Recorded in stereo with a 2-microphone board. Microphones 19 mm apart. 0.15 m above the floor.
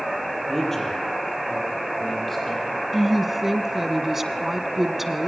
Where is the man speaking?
15° left (ahead or behind), 5 m; by 2.8 s 5° left (ahead or behind), 7 m.